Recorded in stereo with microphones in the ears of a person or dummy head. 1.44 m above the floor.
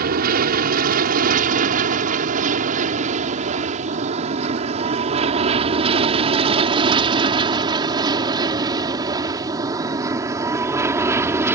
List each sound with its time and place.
0.0 s an aircraft: 50° right (ahead or behind); by 11.6 s 10° right (ahead or behind)